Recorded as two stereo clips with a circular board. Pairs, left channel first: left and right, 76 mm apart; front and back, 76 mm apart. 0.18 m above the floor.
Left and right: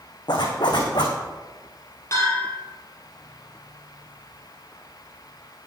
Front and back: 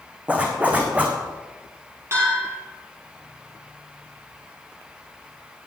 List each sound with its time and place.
0.3 s a zipper: 110° left, 2.5 m
2.1 s a bell: 135° left, 5 m